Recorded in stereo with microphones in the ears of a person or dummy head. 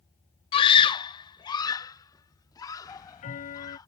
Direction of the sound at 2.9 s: 40° left (ahead or behind).